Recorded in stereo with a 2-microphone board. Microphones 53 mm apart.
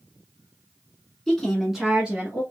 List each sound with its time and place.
1.3 s a woman speaking: 15° left (ahead or behind), 1.6 m; by 2.4 s 25° right (ahead or behind), 1.8 m